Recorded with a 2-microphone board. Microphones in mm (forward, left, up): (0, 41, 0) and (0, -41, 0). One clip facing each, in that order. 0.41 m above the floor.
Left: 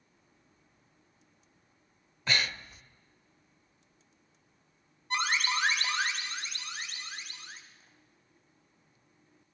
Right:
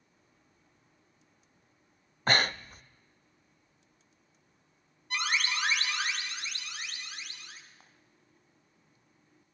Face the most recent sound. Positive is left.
turn(degrees=-65)  # may be behind; listen again after turning